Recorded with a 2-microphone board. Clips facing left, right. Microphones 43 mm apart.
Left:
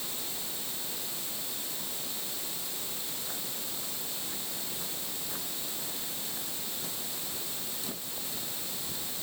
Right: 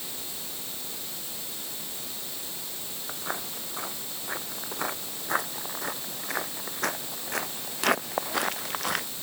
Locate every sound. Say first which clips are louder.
3.1 s footsteps: right 6 dB; 50° right (ahead or behind); by 9.1 s 75° right (ahead or behind)